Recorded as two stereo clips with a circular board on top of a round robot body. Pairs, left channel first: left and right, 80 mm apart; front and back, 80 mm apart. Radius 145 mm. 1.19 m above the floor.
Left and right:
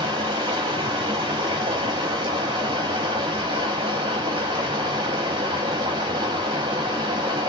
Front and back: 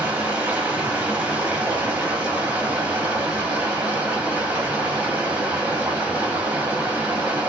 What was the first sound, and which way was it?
Running water, 105° right.